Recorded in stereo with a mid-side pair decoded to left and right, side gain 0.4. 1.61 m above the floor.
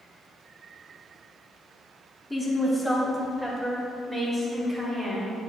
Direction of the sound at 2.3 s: 10° left.